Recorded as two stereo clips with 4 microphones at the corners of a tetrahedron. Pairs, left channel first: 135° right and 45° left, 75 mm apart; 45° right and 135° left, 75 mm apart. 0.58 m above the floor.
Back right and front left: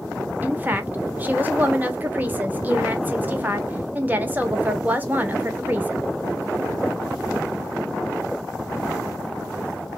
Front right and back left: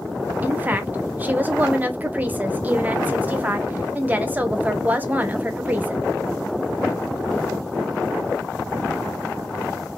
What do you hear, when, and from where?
0.4 s a woman speaking: 90° left, 0.7 m